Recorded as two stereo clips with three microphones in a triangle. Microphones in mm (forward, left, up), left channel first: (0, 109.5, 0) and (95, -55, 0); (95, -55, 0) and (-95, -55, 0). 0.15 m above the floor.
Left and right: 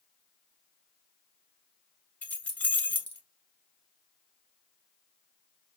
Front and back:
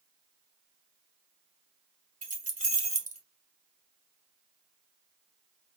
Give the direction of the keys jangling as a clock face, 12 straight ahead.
5 o'clock.